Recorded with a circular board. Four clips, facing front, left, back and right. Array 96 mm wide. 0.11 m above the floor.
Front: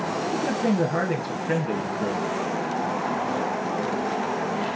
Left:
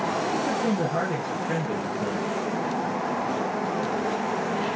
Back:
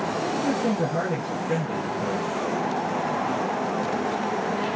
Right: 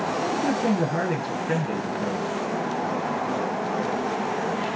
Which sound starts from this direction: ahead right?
A man speaking, at 0.3 s.